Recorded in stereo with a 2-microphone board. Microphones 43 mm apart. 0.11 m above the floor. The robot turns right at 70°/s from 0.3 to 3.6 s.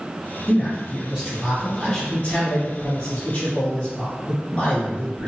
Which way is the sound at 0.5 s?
75° right.